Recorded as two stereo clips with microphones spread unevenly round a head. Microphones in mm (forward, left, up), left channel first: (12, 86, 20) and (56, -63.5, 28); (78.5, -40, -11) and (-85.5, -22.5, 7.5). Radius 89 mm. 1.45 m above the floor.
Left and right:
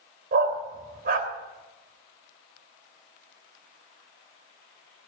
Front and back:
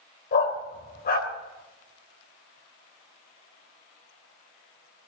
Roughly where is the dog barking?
Ahead right.